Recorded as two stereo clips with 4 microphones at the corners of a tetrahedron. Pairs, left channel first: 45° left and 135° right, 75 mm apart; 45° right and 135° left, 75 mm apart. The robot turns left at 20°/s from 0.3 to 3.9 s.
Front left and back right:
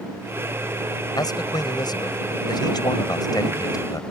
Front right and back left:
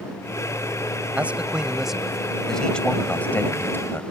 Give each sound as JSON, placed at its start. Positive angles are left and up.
{"t": 1.2, "sound": "a man speaking", "azimuth_deg": 65}